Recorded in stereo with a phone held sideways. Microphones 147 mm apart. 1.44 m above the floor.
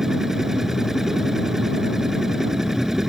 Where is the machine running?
5° right (ahead or behind).